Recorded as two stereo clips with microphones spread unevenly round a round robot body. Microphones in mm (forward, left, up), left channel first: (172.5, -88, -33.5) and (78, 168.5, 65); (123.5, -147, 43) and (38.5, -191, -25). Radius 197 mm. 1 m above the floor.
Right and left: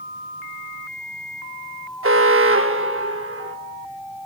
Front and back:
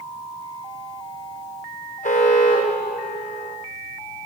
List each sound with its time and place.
2.0 s an alarm: 60° left, 4 m